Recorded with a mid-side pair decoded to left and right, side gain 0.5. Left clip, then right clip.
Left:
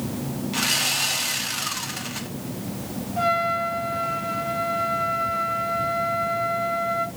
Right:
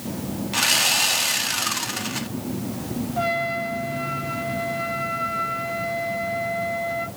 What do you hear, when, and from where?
0.5 s sawing: 25° right, 0.8 m
3.2 s a trumpet: 5° right, 1.0 m